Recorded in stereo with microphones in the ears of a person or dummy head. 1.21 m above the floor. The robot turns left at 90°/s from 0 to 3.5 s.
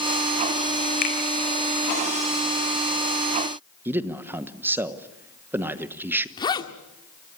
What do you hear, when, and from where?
1.0 s a finger snap: 50° left (ahead or behind), 4.5 m; by 1.1 s 60° left (ahead or behind), 4.5 m
3.9 s a man speaking: 15° right (ahead or behind), 1.2 m
6.4 s a zipper: 25° left (ahead or behind), 1.4 m